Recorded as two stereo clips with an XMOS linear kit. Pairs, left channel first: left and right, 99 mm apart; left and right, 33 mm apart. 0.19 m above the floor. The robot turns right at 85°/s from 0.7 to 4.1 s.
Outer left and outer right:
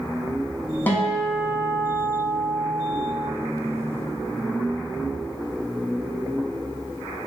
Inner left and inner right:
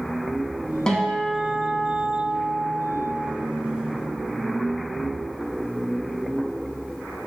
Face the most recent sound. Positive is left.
turn(degrees=65)